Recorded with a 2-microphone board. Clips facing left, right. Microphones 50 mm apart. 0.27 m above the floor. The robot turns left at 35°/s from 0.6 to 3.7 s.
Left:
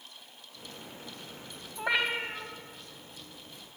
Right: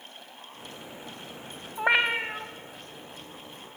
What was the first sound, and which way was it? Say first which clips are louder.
A cat meowing: right 5 dB; 40° right (ahead or behind).